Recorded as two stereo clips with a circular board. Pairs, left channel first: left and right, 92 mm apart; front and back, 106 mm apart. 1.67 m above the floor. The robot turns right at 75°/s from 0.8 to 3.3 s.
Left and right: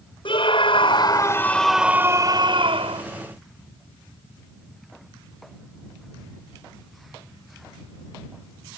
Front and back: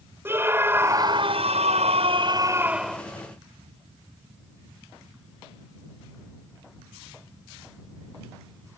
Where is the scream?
110° left; by 3.0 s 80° right.